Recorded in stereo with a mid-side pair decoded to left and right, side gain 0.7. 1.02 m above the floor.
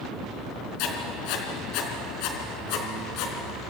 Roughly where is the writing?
Ahead left.